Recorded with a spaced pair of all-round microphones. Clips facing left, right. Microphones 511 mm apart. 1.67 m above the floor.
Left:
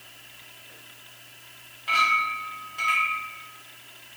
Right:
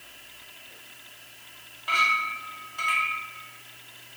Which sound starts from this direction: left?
A clink, at 1.9 s.